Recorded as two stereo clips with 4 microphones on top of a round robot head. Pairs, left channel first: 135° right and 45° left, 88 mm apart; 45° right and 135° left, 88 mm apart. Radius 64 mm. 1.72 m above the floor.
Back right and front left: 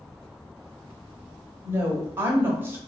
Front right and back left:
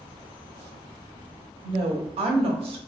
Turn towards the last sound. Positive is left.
turn(degrees=110)